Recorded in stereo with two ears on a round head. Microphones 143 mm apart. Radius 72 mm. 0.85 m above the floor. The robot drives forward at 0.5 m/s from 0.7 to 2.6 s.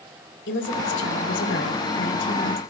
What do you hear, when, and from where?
0.5 s a woman speaking: 85° left, 5.5 m